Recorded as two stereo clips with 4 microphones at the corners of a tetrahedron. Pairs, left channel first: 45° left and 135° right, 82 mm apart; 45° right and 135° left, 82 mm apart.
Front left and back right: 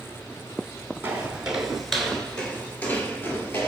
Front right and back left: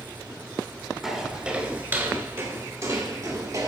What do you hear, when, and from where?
1.0 s footsteps: 150° right, 1.2 m; by 3.7 s 105° left, 2.0 m